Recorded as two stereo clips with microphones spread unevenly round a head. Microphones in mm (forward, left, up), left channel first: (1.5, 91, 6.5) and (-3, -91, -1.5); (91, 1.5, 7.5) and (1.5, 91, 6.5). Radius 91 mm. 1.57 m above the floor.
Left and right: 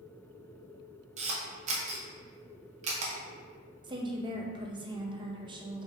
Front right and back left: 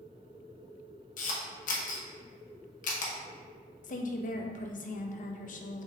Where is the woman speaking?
25° right, 0.6 m.